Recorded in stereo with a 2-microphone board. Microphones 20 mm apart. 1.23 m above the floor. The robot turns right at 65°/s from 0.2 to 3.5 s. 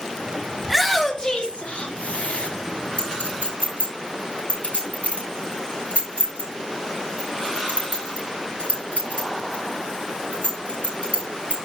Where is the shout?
10° right (ahead or behind), 2.5 m; by 2.5 s 70° left (ahead or behind), 2.5 m.